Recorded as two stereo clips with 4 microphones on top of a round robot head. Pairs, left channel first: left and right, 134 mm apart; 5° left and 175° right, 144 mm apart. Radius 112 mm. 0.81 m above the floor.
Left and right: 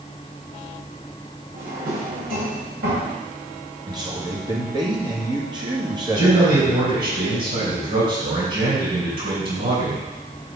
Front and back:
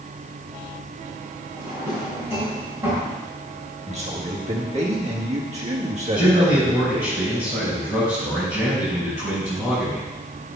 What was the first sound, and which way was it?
A drawer, 100° right.